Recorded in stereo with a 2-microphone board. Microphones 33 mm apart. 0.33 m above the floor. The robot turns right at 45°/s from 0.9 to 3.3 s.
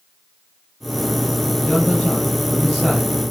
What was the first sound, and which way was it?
A man speaking, 120° left.